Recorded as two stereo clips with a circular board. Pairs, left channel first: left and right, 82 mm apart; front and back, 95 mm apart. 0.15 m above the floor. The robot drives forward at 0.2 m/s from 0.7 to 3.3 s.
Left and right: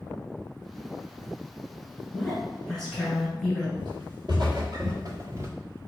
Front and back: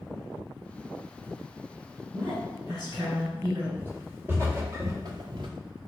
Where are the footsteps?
110° right, 1.9 m; by 5.5 s 145° right, 0.7 m.